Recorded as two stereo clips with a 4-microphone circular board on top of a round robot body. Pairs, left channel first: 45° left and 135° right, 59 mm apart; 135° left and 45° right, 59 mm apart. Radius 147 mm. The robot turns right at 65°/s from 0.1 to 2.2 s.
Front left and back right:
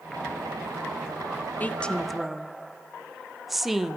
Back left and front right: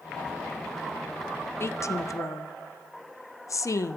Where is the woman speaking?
100° left, 1.4 m; by 4.0 s 140° left, 1.4 m.